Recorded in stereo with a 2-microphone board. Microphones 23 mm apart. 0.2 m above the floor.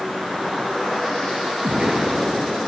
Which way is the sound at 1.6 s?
35° right (ahead or behind).